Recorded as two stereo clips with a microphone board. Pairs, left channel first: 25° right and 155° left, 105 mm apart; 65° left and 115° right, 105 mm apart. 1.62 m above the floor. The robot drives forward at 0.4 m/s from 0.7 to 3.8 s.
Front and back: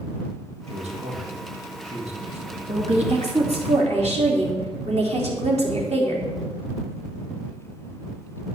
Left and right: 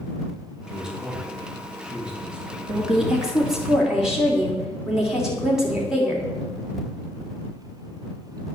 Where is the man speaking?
165° left, 3 m.